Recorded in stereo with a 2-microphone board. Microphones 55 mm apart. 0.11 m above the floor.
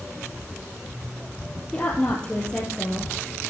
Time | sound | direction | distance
1.7 | a woman speaking | 20° left (ahead or behind) | 3 m